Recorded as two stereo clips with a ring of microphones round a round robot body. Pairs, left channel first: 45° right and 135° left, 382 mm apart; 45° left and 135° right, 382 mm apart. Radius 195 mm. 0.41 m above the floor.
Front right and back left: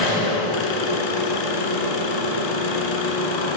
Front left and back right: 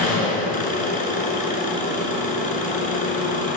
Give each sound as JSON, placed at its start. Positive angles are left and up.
{"t": 0.0, "sound": "an engine running", "azimuth_deg": -25, "distance_m": 1.7}